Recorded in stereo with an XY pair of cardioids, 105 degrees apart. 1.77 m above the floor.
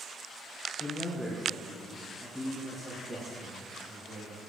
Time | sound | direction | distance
0.8 | a man speaking | 25° left | 1.0 m